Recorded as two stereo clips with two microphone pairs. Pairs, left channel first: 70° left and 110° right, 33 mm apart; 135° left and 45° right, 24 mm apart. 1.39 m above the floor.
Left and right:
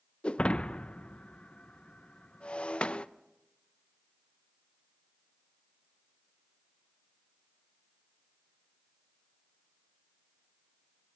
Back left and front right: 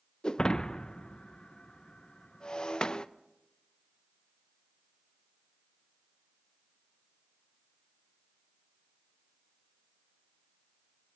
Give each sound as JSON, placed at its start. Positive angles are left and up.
{"t": 0.2, "sound": "breaking glass", "azimuth_deg": 95, "distance_m": 0.6}